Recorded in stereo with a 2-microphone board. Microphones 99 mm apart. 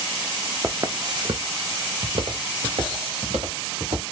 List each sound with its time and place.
0.6 s footsteps: 20° right (ahead or behind), 0.6 m; by 4.0 s 85° right, 2.5 m